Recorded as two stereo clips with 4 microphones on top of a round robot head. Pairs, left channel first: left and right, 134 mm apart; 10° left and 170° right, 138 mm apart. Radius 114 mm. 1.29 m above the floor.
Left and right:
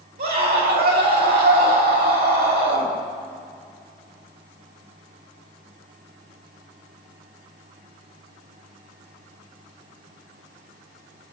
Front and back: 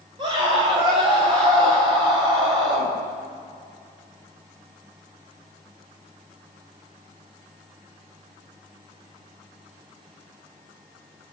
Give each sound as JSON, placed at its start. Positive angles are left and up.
{"t": 0.2, "sound": "a scream", "azimuth_deg": -105, "distance_m": 6.0}